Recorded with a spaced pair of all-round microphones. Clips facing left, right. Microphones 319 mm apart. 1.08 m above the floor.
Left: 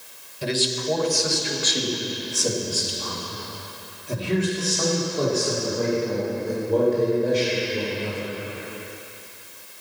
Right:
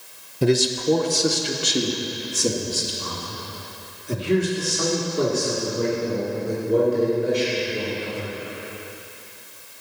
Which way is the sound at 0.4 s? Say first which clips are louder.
Right 7 dB; 60° right (ahead or behind).